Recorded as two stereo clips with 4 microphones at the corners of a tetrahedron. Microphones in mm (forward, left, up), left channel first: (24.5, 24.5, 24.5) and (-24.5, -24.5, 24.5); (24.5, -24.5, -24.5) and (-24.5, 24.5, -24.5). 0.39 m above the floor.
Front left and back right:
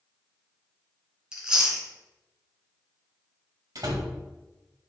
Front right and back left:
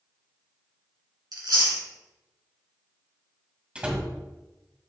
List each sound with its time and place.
1.3 s chewing: 150° left, 2.5 m
3.8 s a door slam: 150° right, 1.8 m